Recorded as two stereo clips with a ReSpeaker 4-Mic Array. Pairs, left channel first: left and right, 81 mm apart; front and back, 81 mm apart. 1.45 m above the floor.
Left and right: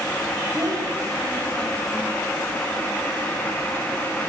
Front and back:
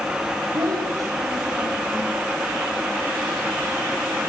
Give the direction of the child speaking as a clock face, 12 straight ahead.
5 o'clock.